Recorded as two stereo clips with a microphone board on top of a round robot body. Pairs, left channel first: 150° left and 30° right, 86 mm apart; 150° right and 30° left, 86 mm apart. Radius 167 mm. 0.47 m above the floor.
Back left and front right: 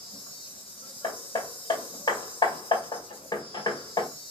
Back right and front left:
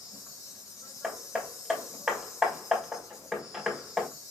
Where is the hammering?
120° left, 1.8 m.